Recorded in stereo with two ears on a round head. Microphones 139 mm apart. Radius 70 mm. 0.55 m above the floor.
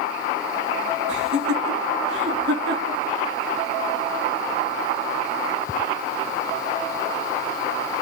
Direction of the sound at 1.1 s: 80° right.